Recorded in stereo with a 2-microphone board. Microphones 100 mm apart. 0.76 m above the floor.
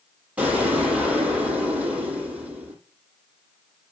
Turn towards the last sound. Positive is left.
turn(degrees=-15)  # may be behind; listen again after turning